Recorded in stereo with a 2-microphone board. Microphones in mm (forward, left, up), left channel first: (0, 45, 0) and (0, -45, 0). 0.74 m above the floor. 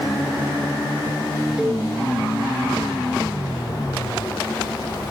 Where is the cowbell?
10° right (ahead or behind), 2 m.